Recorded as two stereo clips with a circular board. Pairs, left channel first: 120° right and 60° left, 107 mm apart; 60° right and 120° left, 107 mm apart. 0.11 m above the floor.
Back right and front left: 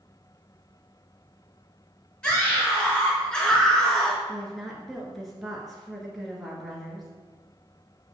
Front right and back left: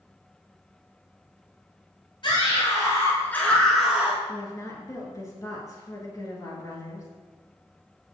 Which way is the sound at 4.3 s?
30° right.